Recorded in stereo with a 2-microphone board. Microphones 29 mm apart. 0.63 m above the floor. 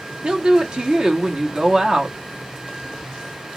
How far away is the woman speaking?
About 1.0 m.